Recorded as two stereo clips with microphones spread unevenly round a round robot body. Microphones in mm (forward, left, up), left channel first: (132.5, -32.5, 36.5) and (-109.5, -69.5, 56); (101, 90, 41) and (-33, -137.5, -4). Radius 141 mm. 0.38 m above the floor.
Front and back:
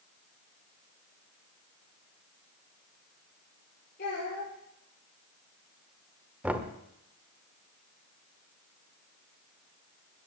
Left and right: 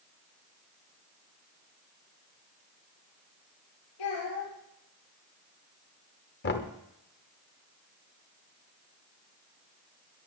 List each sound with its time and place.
4.0 s a child speaking: 65° left, 7.5 m
6.4 s knocking: 100° left, 1.2 m